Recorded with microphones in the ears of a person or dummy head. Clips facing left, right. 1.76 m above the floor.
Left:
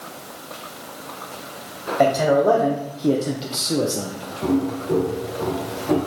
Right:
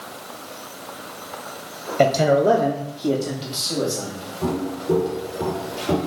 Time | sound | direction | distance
2.0 | a man speaking | 30° right (ahead or behind) | 0.7 m
4.4 | footsteps | 40° right (ahead or behind) | 2.5 m